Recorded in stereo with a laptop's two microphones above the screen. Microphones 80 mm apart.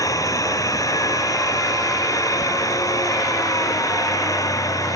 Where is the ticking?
80° right.